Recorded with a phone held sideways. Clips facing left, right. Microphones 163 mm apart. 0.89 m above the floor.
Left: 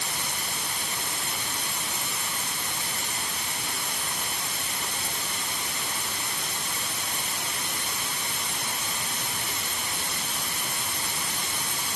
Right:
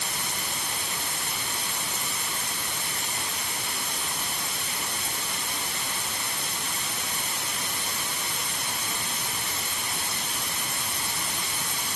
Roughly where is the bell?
I don't hear a bell.